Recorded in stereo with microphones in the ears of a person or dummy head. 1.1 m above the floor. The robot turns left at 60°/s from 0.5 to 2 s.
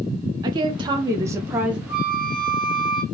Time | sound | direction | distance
0.4 | a woman speaking | 20° right (ahead or behind) | 0.5 m
1.9 | a flute | 10° right (ahead or behind) | 1.7 m